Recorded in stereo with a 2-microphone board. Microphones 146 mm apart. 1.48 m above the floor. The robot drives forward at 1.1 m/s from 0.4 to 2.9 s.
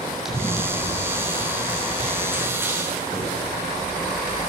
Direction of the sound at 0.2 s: Centre (ahead or behind).